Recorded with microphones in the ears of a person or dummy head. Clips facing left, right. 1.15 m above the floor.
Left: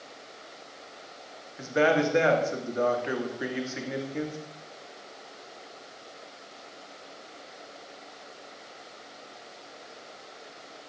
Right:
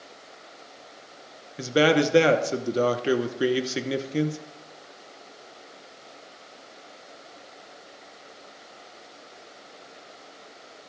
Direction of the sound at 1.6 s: 45° right (ahead or behind).